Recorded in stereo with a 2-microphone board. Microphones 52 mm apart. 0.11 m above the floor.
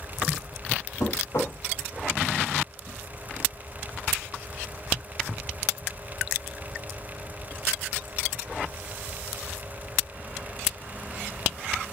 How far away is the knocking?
About 3.5 m.